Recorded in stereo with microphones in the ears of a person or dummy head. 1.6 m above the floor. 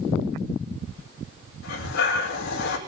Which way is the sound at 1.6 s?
60° left (ahead or behind).